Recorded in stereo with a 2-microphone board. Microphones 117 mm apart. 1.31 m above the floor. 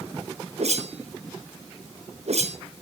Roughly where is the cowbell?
I don't hear a cowbell.